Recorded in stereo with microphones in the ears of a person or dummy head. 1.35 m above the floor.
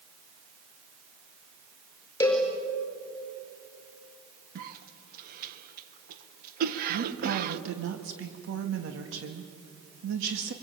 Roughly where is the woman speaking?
Right.